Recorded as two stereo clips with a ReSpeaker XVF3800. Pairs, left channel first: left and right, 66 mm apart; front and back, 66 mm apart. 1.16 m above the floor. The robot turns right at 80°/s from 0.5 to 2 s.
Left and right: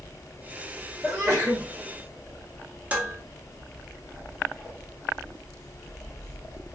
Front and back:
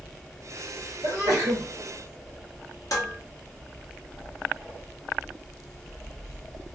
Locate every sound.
1.0 s a sneeze: 170° right, 0.9 m; by 1.6 s 120° right, 0.9 m
2.9 s dishes clattering: 25° right, 0.9 m